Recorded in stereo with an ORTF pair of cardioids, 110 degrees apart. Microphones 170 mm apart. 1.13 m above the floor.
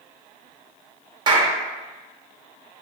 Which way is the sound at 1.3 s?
30° right.